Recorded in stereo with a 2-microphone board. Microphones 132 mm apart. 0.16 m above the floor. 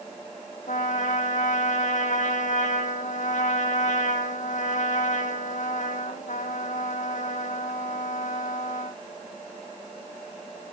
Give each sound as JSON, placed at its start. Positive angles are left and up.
{"t": 0.7, "sound": "a trumpet", "side_deg": 75, "distance_m": 1.9}